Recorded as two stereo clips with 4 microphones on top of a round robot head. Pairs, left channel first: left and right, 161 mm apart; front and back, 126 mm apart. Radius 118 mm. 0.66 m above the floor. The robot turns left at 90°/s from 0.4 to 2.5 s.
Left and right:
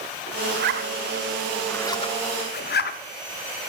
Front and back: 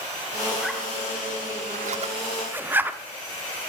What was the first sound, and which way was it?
A zipper, 80° right.